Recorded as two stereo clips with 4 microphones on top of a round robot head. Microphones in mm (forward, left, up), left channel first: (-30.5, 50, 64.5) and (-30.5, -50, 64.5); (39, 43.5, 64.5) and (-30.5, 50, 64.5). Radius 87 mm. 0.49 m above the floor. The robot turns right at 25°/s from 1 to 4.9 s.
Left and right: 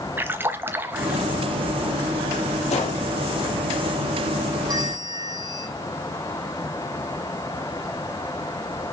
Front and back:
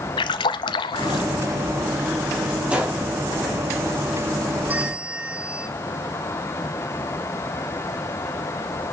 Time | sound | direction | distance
0.2 | a splash | 15° right | 1.0 m
2.7 | a gunshot | 100° left | 3.5 m
4.7 | a bell | 125° right | 1.4 m